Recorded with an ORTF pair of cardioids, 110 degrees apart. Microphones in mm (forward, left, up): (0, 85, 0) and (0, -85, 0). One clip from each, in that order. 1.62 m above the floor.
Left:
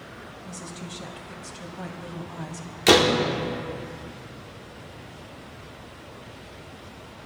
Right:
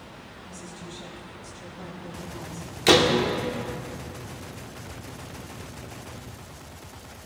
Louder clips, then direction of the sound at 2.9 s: Left 1 dB; 5° left.